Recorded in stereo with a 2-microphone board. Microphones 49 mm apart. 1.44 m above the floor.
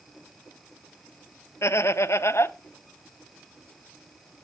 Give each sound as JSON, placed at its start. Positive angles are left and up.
{"t": 1.6, "sound": "laughter", "side_deg": 65, "distance_m": 0.6}